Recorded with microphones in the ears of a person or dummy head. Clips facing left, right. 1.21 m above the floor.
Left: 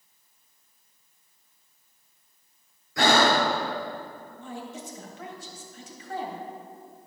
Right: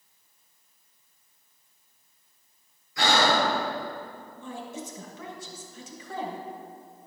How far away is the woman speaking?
About 1.6 m.